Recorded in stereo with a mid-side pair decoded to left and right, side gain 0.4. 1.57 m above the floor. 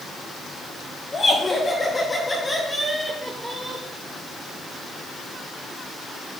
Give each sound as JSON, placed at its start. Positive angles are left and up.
{"t": 1.1, "sound": "laughter", "azimuth_deg": 40, "distance_m": 2.5}